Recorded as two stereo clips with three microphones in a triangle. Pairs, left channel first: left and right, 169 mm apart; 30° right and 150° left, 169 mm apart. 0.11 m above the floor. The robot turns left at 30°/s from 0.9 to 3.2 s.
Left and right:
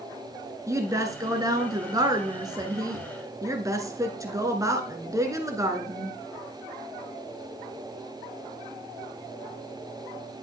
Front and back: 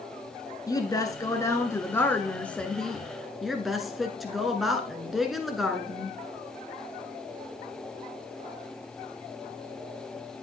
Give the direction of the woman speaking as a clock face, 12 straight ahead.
2 o'clock.